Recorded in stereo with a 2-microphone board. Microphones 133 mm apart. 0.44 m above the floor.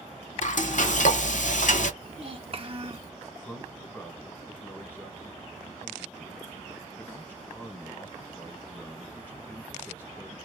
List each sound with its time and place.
0.4 s frying: 70° left (ahead or behind), 0.6 m
2.0 s a child speaking: 45° right (ahead or behind), 0.9 m
3.3 s a man speaking: 15° left (ahead or behind), 1.7 m